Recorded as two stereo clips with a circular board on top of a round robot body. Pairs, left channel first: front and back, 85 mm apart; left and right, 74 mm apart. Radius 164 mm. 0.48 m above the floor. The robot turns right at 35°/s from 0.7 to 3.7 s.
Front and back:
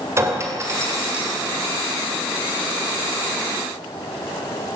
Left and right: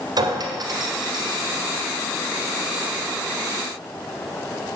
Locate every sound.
0.2 s a clink: 120° right, 2 m; by 1.4 s 95° right, 2 m